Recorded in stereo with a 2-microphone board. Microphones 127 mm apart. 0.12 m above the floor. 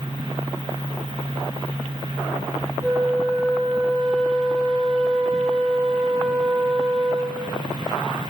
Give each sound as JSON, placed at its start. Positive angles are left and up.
{"t": 2.8, "sound": "a flute", "side_deg": 0, "distance_m": 4.0}